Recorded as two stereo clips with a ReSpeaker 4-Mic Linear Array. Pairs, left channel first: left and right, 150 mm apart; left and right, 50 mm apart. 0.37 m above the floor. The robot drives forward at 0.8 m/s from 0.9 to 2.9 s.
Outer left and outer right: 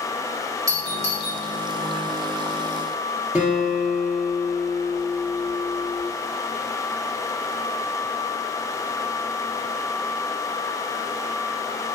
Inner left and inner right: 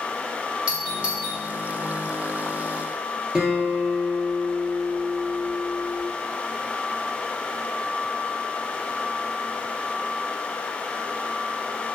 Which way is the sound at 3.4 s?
10° right (ahead or behind).